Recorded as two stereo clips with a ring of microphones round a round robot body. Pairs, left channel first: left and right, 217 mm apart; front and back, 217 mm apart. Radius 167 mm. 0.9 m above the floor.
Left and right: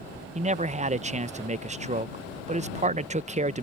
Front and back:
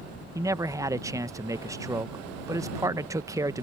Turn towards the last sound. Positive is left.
turn(degrees=-115)